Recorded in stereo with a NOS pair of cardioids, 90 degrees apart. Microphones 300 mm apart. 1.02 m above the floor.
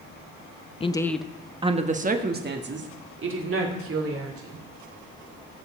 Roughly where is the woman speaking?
Ahead.